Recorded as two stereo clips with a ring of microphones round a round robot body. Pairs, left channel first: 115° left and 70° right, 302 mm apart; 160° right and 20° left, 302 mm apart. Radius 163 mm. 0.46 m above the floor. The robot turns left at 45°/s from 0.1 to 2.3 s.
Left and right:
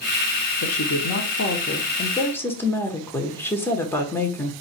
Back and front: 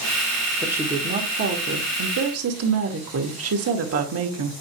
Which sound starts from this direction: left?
A woman speaking, at 0.6 s.